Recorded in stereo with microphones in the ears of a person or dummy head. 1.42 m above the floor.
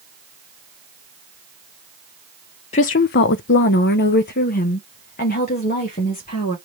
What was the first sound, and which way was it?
A woman speaking, 40° left (ahead or behind).